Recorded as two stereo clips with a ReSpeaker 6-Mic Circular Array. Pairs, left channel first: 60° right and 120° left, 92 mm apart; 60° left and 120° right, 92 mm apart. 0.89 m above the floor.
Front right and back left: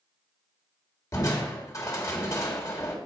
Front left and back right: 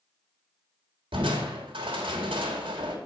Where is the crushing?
115° right, 1.7 m.